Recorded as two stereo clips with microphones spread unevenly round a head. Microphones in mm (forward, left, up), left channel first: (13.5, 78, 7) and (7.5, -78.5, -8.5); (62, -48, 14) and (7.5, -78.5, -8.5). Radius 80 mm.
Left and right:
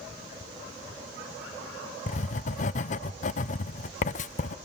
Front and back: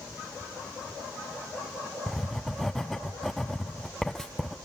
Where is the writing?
130° left, 0.6 m.